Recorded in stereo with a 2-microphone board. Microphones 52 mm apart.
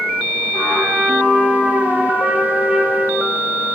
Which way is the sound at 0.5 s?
15° right (ahead or behind).